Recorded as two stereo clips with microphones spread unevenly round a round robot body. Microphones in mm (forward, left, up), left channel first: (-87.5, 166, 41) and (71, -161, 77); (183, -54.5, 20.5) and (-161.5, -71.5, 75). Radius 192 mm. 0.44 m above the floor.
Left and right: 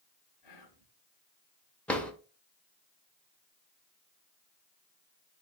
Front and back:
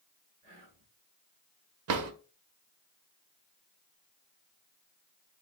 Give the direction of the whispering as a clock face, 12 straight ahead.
8 o'clock.